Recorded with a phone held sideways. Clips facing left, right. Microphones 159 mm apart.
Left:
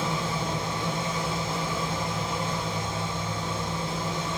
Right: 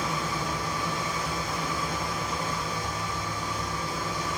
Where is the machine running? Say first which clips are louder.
Left 2 dB; 25° left (ahead or behind), 4.5 m.